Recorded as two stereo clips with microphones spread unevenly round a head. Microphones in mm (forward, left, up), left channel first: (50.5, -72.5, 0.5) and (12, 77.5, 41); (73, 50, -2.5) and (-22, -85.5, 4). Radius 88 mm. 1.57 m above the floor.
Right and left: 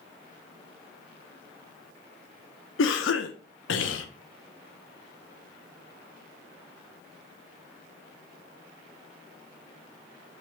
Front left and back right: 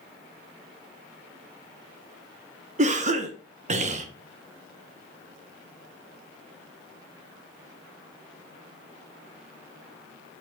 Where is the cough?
80° right, 1.1 m.